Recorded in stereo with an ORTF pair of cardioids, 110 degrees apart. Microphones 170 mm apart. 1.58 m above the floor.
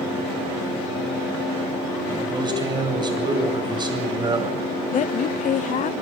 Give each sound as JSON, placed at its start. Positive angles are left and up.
{"t": 2.1, "sound": "a man speaking", "azimuth_deg": -25, "distance_m": 8.5}
{"t": 4.9, "sound": "a woman speaking", "azimuth_deg": 50, "distance_m": 0.7}